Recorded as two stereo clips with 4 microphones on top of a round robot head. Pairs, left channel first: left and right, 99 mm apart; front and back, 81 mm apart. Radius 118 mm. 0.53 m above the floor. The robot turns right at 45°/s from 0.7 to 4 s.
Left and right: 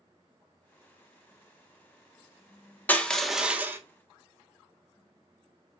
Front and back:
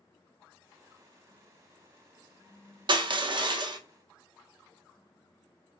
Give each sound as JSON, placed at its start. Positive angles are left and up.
{"t": 2.9, "sound": "crushing", "azimuth_deg": 160, "distance_m": 0.7}